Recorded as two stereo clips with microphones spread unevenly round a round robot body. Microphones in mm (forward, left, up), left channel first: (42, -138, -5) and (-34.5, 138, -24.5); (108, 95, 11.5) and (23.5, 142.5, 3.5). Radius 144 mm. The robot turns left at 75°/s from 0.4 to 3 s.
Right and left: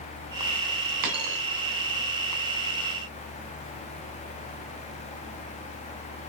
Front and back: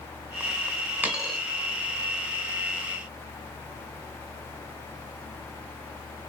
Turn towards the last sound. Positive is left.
turn(degrees=-70)